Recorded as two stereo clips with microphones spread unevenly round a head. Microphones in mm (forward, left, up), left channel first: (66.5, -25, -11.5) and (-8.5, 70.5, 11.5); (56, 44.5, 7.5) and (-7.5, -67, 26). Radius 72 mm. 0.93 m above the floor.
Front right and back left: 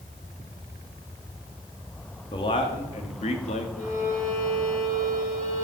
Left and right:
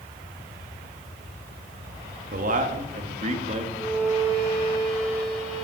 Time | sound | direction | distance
2.3 | a man speaking | 105° right | 1.9 m
3.8 | a violin | 25° right | 8 m